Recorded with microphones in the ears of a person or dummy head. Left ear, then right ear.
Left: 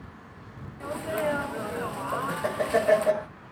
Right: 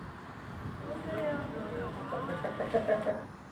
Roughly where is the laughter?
Left.